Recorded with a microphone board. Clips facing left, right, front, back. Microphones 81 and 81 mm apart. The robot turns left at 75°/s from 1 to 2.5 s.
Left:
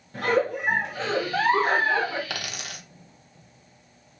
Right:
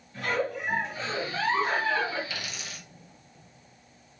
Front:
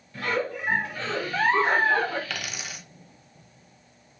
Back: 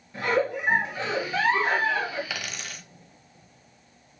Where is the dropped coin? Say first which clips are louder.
Left 4 dB, even; 95° left, 0.6 m; by 2.8 s 80° left, 0.6 m.